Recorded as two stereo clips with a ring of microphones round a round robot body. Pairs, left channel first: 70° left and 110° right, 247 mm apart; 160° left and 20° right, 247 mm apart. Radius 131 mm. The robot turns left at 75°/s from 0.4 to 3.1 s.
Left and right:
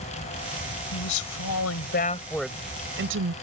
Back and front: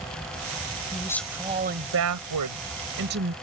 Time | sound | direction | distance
0.9 | a woman speaking | 90° left | ?